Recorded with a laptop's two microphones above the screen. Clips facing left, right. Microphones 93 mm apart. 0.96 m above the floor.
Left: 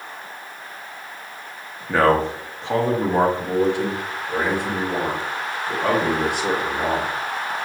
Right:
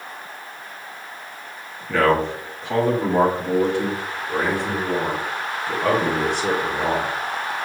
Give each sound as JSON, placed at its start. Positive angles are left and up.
{"t": 1.9, "sound": "a man speaking", "side_deg": 30, "distance_m": 0.8}